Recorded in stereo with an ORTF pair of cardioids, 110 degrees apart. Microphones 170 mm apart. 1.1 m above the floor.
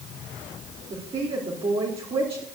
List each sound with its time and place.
0.9 s a woman speaking: 30° right, 2.5 m